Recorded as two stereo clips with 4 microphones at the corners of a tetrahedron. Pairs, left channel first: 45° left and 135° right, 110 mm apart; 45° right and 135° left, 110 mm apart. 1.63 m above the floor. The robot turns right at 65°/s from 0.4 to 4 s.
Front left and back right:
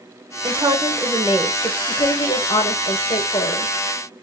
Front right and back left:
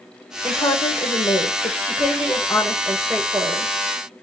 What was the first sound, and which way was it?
A woman speaking, 115° right.